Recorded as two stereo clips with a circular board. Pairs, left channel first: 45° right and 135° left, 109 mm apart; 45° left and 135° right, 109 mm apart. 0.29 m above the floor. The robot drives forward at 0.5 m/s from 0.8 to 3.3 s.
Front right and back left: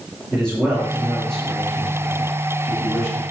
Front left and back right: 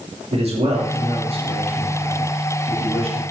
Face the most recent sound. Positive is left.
turn(degrees=-140)